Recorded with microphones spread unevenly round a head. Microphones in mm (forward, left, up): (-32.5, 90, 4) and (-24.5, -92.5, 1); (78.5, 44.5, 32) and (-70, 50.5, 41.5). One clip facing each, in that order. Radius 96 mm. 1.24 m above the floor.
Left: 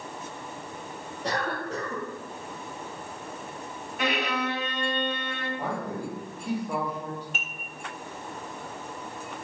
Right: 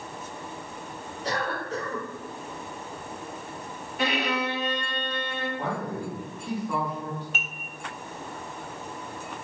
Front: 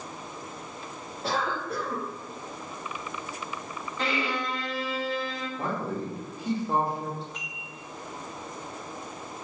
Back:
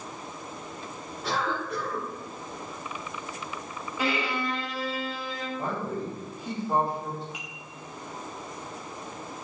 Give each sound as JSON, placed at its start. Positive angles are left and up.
{"t": 1.2, "sound": "a cough", "azimuth_deg": 55, "distance_m": 0.7}
{"t": 4.0, "sound": "a violin", "azimuth_deg": -105, "distance_m": 0.6}
{"t": 5.6, "sound": "a man speaking", "azimuth_deg": 15, "distance_m": 1.0}
{"t": 7.3, "sound": "dishes clattering", "azimuth_deg": -100, "distance_m": 0.5}